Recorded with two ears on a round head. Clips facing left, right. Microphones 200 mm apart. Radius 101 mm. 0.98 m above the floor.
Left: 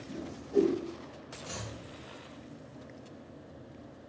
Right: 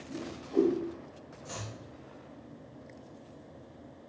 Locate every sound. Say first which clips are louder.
0.1 s a whoosh: left 2 dB; 15° left (ahead or behind), 1.6 m
1.4 s chopping: even; centre (ahead or behind), 1.2 m